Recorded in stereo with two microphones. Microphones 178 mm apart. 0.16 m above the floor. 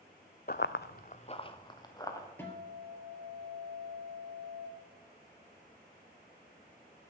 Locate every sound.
0.5 s running footsteps: 55° left (ahead or behind), 0.6 m; by 2.3 s 20° left (ahead or behind), 2 m
2.4 s a guitar: 10° left (ahead or behind), 2.5 m